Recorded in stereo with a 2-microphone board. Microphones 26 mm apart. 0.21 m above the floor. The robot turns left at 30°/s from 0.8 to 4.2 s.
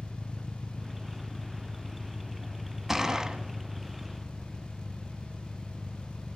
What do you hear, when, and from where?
0.0 s an engine running: 130° left, 0.9 m; by 6.4 s 30° left, 0.9 m
2.9 s a gunshot: 15° right (ahead or behind), 0.8 m; by 3.4 s 25° right (ahead or behind), 0.8 m